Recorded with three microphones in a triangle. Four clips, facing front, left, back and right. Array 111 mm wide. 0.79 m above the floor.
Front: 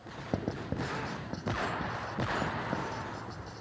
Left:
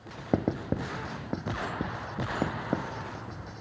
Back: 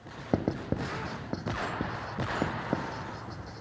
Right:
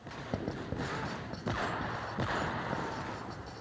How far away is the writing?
About 0.7 m.